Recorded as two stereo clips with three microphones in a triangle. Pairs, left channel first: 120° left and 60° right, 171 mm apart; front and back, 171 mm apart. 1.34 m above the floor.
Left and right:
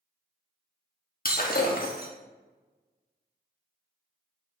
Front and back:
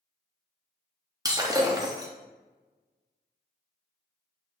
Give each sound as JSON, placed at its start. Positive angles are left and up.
{"t": 1.2, "sound": "breaking glass", "azimuth_deg": 115, "distance_m": 1.2}